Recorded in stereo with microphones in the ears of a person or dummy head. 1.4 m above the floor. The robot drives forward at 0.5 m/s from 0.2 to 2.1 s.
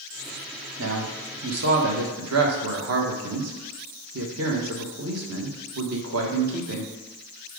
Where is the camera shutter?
I don't hear a camera shutter.